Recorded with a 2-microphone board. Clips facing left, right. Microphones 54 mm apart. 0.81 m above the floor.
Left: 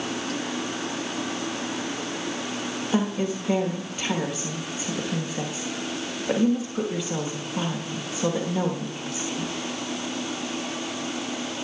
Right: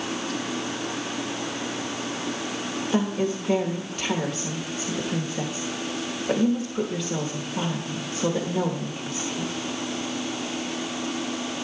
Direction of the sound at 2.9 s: 10° left (ahead or behind).